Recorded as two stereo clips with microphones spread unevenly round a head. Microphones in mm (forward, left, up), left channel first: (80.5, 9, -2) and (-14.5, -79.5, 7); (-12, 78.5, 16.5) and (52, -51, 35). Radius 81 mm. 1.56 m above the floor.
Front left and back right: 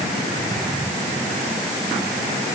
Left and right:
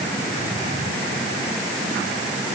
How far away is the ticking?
No ticking in this recording.